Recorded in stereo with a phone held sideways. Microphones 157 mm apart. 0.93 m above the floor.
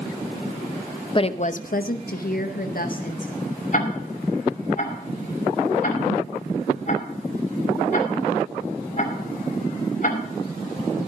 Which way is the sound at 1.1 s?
30° left (ahead or behind).